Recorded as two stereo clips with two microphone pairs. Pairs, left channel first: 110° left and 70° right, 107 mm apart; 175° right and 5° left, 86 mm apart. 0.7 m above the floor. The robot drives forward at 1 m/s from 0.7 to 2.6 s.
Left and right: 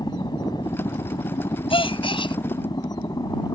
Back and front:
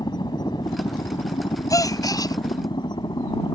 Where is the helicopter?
155° left; by 3.5 s 160° left.